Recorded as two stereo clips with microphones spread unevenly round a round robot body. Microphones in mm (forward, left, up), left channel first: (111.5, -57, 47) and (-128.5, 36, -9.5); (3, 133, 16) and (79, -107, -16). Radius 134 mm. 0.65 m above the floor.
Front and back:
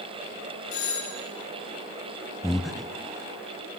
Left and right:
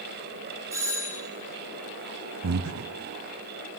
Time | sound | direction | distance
0.7 | a doorbell | 5° left | 3.5 m
2.4 | breathing | 115° right | 0.5 m